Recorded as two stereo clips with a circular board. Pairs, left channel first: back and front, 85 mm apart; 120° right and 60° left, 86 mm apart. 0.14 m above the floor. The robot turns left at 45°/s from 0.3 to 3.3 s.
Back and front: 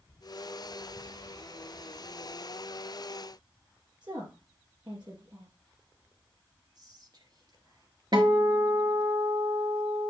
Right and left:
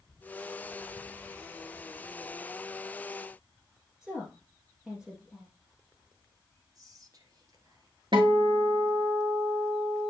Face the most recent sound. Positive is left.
turn(degrees=30)